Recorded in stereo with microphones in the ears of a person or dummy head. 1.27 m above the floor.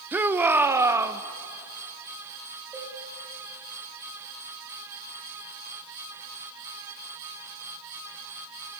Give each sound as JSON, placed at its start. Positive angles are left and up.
{"t": 0.1, "sound": "a shout", "side_deg": -15, "distance_m": 0.6}
{"t": 2.7, "sound": "a cowbell", "side_deg": -5, "distance_m": 7.5}